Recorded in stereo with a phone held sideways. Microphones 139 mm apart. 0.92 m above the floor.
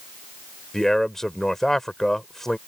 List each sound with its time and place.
0.7 s a man speaking: 5° left (ahead or behind)